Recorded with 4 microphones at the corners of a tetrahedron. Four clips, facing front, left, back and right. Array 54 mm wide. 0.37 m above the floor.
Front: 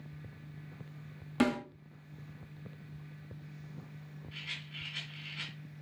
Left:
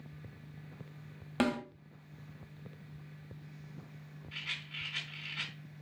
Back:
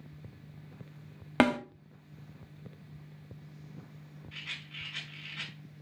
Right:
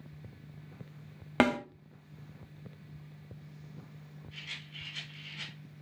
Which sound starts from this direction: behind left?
A rattle, at 4.3 s.